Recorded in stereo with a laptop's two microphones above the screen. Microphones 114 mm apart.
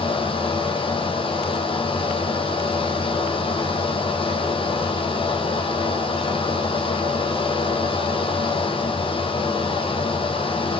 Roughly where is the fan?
Left.